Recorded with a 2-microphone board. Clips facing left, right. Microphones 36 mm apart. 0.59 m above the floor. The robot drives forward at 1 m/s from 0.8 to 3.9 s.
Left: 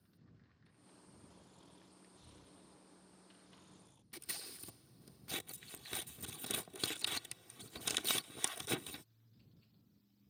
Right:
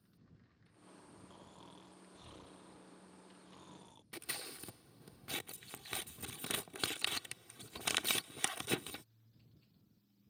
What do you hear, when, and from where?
1.3 s snoring: 65° right (ahead or behind); by 4.0 s 70° right (ahead or behind)
4.1 s scissors: 40° right (ahead or behind)